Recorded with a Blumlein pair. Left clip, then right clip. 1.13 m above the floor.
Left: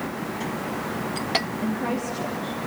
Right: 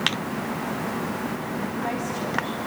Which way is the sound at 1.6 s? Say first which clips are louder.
Left 1 dB; 30° left.